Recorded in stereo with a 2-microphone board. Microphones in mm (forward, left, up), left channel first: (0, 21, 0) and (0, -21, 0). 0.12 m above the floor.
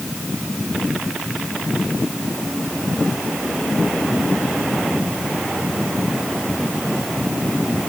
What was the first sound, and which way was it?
Only background noise.